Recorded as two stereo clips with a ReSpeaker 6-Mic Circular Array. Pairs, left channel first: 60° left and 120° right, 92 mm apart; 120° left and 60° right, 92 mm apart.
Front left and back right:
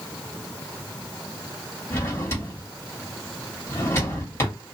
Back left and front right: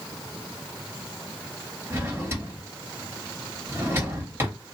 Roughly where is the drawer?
Ahead.